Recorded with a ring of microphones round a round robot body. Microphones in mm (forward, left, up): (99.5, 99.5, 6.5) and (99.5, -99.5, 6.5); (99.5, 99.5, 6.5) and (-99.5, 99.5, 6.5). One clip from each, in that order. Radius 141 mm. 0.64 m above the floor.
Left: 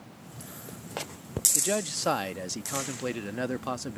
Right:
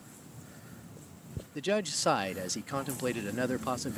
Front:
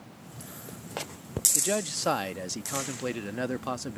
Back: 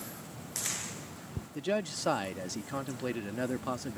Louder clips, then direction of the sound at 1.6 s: Left 2 dB, front 4 dB; 10° right.